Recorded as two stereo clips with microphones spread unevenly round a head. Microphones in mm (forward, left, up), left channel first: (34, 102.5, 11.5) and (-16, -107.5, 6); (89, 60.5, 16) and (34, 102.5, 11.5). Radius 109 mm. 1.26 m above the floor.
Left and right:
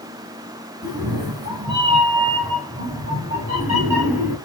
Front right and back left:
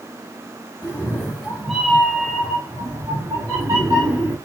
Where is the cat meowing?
45° right, 1.4 m; by 4.4 s straight behind, 2.5 m.